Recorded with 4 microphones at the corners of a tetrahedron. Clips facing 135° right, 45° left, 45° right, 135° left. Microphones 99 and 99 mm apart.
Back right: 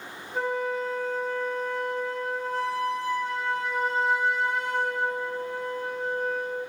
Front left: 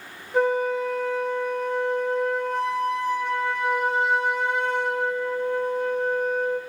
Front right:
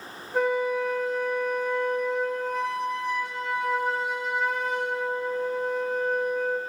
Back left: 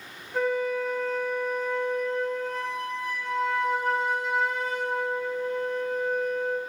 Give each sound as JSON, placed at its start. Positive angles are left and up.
{"t": 0.3, "sound": "a flute", "azimuth_deg": 35, "distance_m": 0.9}